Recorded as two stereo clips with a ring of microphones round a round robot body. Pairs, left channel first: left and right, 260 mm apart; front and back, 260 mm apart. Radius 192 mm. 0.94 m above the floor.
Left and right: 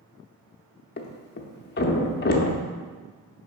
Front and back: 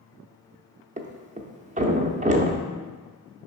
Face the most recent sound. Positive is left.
turn(degrees=125)